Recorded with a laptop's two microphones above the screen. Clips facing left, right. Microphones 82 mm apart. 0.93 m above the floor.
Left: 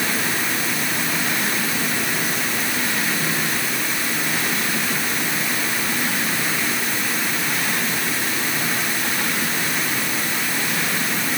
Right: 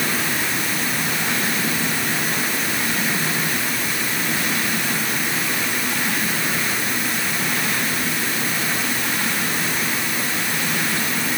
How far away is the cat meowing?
No cat meowing in this recording.